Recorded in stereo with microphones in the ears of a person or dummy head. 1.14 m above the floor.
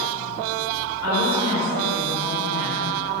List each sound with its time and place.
1.0 s a woman speaking: 10° right (ahead or behind), 1.3 m